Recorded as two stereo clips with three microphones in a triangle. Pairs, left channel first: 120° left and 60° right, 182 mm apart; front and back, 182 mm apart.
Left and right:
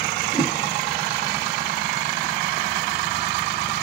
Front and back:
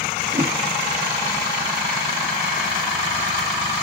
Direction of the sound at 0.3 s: 155° right.